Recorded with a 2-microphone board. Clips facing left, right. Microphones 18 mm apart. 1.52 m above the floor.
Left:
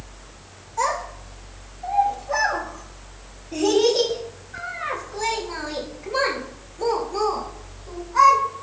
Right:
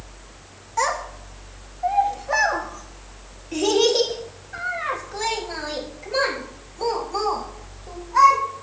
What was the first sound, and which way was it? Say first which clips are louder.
A child speaking: right 1 dB; 60° right (ahead or behind).